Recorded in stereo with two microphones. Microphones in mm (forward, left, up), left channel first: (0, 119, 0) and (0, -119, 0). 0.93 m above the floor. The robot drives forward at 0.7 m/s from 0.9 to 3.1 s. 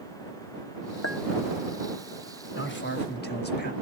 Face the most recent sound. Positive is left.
turn(degrees=45)  # may be behind; listen again after turning